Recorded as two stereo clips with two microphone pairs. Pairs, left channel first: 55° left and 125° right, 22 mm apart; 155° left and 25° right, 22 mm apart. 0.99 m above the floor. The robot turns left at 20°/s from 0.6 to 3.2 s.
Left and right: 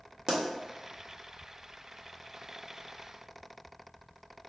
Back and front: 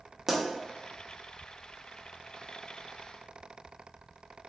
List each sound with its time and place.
0.3 s a pop: 95° right, 0.7 m